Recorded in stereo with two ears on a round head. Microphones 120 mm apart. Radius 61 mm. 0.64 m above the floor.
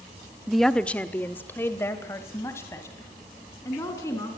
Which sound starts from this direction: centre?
A woman speaking, at 0.5 s.